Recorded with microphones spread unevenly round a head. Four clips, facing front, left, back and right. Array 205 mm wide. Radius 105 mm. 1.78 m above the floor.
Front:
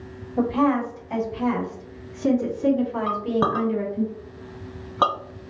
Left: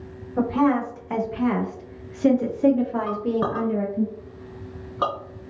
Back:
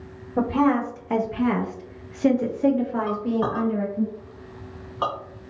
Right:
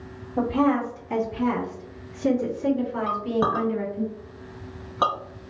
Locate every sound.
0.4 s a woman speaking: 170° right, 1.7 m; by 4.1 s 100° left, 1.7 m
3.1 s a clink: 10° left, 1.2 m